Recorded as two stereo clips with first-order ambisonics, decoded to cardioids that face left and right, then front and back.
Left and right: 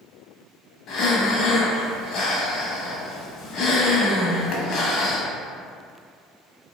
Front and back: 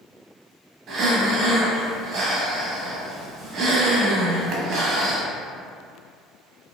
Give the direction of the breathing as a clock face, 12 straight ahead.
8 o'clock.